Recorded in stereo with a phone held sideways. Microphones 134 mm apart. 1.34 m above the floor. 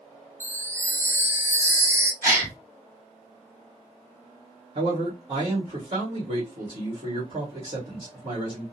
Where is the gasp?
20° right (ahead or behind), 1.9 m.